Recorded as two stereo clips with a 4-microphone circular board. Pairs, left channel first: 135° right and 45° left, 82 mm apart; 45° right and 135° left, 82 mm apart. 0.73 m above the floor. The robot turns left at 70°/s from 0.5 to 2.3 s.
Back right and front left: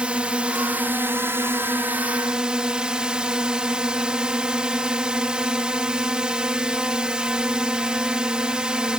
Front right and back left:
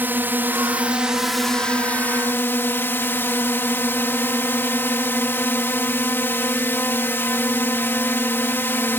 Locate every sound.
0.0 s a drone: 105° left; by 9.0 s 20° right